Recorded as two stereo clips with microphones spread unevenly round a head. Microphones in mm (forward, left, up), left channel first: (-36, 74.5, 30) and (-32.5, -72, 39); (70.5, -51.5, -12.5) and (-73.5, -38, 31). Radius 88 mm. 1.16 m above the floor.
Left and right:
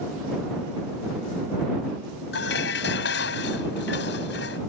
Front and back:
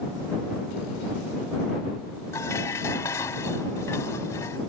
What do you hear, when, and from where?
2.3 s dishes clattering: 75° left